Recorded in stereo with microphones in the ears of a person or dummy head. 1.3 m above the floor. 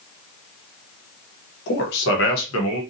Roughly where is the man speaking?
Left.